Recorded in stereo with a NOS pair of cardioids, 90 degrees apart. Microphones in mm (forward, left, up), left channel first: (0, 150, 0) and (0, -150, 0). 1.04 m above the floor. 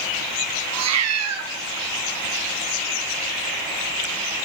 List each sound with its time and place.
0.7 s a cat meowing: 65° right, 0.9 m